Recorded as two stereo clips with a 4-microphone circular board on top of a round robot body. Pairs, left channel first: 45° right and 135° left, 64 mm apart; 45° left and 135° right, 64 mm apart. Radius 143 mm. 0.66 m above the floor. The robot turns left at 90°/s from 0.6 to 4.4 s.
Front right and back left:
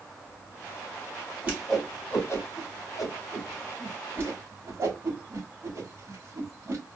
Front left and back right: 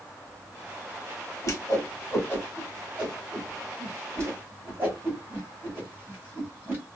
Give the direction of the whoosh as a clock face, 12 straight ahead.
10 o'clock.